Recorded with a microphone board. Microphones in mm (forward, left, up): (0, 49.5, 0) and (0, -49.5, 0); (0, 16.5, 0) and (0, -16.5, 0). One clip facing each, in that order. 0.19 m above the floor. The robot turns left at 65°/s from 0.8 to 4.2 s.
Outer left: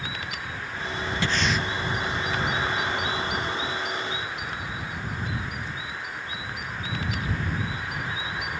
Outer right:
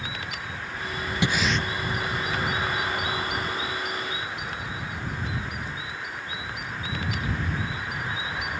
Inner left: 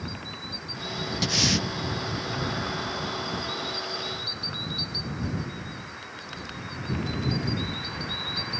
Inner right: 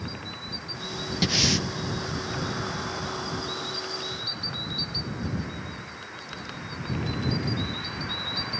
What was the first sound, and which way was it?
Breathing, 20° right (ahead or behind).